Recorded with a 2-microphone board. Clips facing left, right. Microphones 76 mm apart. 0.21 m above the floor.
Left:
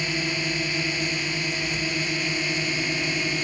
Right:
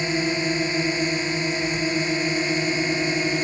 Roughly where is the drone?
Right.